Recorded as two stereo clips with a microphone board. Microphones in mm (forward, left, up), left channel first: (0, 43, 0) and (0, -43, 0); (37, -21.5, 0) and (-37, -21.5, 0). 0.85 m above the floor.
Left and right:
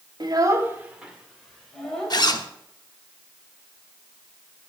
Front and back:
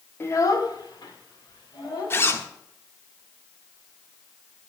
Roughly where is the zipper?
Ahead left.